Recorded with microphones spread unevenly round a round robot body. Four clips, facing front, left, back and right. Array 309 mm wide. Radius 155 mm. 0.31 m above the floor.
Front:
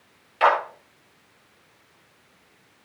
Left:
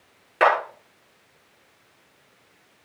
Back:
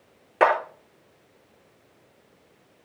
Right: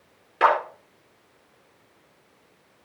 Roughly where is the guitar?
I don't hear a guitar.